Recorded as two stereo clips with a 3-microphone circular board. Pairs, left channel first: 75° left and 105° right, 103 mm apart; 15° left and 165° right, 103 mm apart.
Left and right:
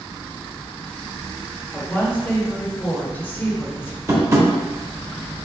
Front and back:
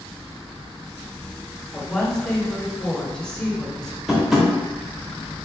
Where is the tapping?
80° right, 1.0 m.